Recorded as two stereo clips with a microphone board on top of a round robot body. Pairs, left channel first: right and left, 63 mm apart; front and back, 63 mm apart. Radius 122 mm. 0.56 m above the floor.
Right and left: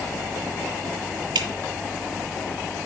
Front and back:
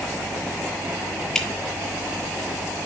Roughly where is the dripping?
Left.